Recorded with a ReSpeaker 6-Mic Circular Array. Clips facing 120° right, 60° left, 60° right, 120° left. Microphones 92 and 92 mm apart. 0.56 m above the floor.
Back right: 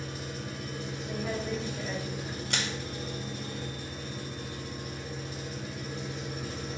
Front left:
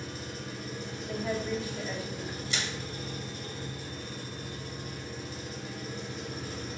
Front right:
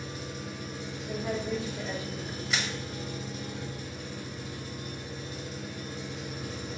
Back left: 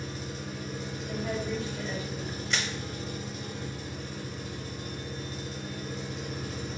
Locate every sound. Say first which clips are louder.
0.0 s an engine running: back right 1 dB, back left 1 dB; 170° left, 2 m
1.1 s a woman speaking: front left 2 dB, front right 1 dB; 10° right, 0.9 m
2.5 s crushing: back right 3 dB, front right 1 dB; 145° right, 0.6 m